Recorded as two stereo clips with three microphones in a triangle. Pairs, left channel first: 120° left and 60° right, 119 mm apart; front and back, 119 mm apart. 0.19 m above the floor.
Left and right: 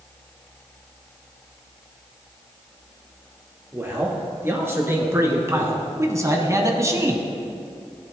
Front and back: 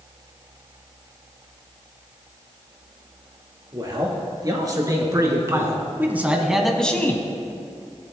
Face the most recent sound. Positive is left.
turn(degrees=-35)